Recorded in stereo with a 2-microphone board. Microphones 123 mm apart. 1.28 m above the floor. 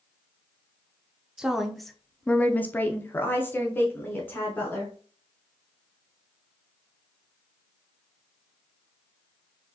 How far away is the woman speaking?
About 0.6 m.